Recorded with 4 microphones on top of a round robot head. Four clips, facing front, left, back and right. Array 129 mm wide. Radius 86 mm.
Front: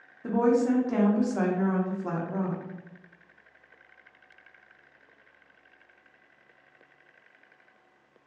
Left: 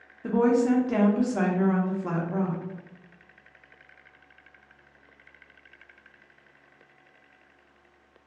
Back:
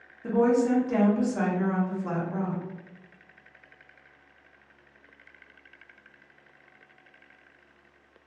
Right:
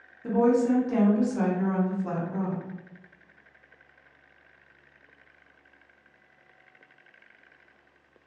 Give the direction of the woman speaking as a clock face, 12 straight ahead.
10 o'clock.